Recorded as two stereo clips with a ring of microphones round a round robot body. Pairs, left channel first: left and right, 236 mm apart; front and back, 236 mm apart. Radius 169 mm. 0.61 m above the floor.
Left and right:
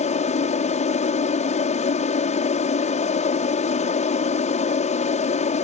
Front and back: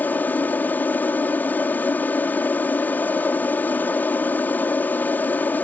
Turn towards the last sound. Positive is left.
turn(degrees=75)